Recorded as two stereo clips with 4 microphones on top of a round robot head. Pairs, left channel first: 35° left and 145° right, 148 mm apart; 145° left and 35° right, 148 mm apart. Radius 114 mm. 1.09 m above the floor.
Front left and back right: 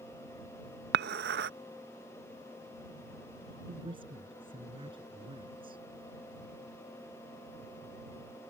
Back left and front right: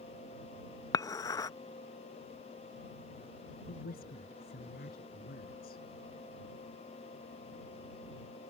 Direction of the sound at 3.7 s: 160° left.